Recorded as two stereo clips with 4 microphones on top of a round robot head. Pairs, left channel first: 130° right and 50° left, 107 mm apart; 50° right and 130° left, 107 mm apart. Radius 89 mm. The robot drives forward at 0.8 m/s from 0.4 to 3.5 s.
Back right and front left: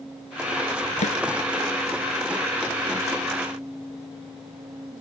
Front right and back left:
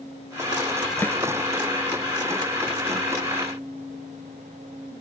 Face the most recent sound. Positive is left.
turn(degrees=-135)